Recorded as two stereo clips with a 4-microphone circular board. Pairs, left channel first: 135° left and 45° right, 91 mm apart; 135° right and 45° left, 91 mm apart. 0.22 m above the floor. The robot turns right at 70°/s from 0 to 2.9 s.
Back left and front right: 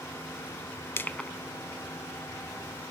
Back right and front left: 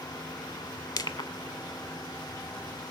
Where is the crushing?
165° right, 0.7 m; by 1.3 s 140° right, 0.7 m.